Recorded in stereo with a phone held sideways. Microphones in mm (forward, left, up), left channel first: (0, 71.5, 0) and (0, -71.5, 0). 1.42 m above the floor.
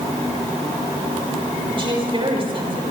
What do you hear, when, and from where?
1.7 s a woman speaking: 40° right (ahead or behind), 6.5 m